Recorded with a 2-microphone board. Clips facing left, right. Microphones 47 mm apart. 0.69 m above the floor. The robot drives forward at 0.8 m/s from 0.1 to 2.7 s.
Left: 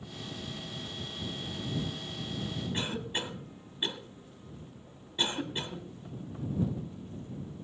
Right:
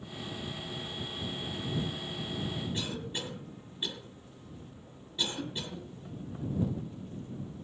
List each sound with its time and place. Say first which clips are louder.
2.7 s a cough: left 2 dB; 30° left (ahead or behind), 2 m